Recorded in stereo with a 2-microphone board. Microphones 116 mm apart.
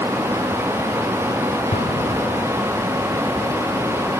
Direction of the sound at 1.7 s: 65° left (ahead or behind).